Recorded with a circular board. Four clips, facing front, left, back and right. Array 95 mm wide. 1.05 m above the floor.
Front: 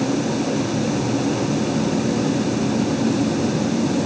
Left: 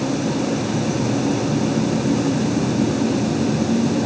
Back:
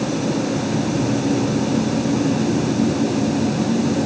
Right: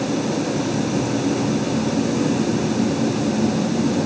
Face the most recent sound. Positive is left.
No sound to turn to.